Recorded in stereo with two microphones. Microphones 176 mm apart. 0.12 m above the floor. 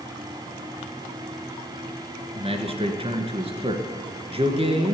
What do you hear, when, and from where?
2.4 s a man speaking: 35° right (ahead or behind), 1.6 m